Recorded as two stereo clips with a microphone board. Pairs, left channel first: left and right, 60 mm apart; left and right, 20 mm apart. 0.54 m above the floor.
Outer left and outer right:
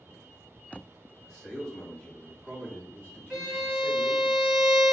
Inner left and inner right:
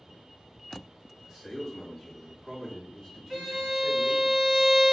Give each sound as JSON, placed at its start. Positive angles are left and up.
{"t": 1.2, "sound": "a man speaking", "side_deg": 0, "distance_m": 1.0}
{"t": 3.3, "sound": "a violin", "side_deg": 0, "distance_m": 1.0}